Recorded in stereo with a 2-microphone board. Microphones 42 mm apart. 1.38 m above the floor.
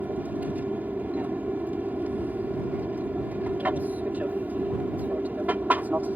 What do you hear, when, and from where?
0.0 s an aircraft: 40° right (ahead or behind)